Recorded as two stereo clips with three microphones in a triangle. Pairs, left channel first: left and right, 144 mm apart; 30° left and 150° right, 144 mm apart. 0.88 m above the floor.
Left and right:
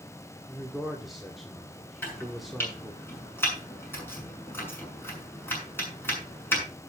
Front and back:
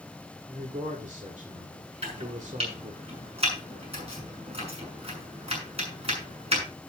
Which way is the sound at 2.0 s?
165° left.